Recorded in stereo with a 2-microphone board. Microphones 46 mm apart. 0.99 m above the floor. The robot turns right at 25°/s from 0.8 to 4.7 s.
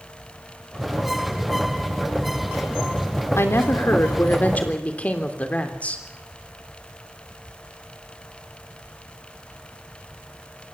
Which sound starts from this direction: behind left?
A woman speaking, at 3.4 s.